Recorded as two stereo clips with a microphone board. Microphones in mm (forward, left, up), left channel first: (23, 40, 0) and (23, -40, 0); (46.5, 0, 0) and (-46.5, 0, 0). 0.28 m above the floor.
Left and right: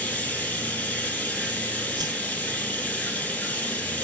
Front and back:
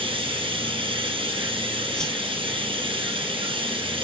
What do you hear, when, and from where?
0.0 s running water: 165° left, 3 m
2.0 s a whoosh: 85° right, 0.7 m